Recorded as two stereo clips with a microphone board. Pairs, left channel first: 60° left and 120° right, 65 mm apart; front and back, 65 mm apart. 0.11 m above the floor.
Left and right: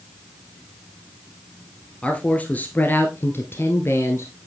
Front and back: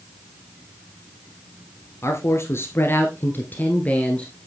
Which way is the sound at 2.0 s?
5° right.